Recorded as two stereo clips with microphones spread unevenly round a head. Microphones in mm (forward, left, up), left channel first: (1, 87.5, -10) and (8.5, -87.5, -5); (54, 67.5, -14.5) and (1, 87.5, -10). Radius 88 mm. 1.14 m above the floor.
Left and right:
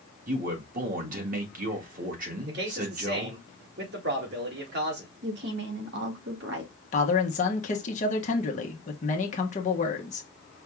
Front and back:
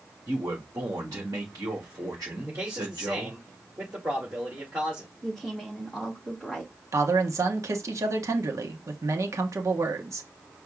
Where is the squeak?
I don't hear a squeak.